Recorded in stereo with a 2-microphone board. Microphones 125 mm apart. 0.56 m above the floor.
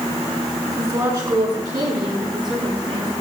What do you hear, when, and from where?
0.7 s a woman speaking: 30° right (ahead or behind), 9 m; by 3.1 s 40° right (ahead or behind), 7 m